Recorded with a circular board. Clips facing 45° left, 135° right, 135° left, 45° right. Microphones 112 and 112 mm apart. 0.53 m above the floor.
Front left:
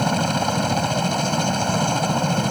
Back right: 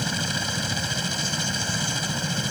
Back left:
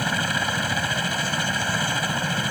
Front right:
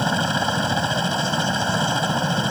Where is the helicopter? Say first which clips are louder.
Front left 9 dB, front right 4 dB; 20° left.